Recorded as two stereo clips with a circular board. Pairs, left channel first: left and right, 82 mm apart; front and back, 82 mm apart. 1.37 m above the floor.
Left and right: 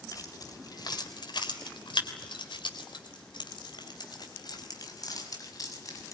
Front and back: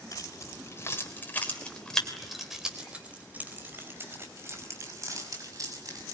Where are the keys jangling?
45° left, 4 m; by 6.2 s 140° left, 6.5 m.